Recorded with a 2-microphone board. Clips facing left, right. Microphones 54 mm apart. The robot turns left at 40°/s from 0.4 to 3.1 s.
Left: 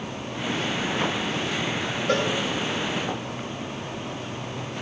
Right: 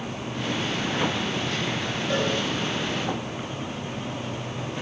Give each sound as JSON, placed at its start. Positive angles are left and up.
{"t": 2.1, "sound": "a cowbell", "side_deg": 70, "distance_m": 6.0}